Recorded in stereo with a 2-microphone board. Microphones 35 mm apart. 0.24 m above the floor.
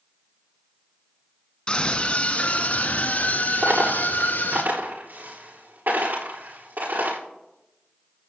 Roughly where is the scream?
Left.